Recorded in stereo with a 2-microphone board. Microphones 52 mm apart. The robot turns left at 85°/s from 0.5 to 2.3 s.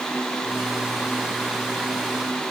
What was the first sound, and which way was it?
Only background noise.